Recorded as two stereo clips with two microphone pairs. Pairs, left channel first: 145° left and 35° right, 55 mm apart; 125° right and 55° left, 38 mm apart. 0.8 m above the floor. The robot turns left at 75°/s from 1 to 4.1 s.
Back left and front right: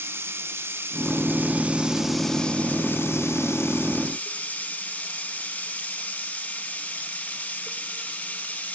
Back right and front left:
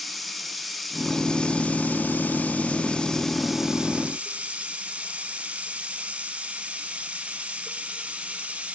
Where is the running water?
35° right, 0.8 m; by 8.8 s 90° left, 0.8 m.